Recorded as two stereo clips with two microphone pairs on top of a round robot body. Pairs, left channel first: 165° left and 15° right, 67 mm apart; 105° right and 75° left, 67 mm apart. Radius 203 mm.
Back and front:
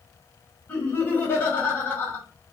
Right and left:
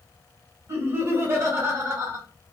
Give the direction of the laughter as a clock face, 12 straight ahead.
9 o'clock.